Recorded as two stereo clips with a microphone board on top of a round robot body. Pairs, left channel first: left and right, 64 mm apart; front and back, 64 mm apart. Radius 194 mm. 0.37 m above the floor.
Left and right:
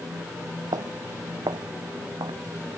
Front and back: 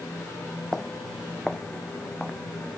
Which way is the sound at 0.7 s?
85° right.